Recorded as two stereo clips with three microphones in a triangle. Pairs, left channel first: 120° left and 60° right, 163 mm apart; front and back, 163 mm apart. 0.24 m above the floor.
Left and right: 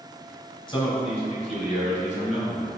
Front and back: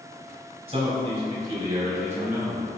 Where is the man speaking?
160° left, 1.5 m; by 2.7 s 105° left, 1.9 m.